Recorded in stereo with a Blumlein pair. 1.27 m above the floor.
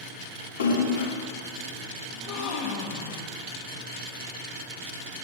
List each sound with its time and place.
0.6 s a splash: 60° left, 3 m
2.1 s a gasp: 35° left, 1.1 m